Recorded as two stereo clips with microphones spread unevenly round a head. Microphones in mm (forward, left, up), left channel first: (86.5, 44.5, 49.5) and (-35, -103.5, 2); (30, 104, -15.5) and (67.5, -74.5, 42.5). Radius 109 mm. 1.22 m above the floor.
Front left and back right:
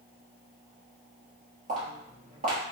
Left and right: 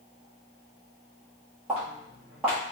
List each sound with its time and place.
1.7 s footsteps: 95° right, 1.3 m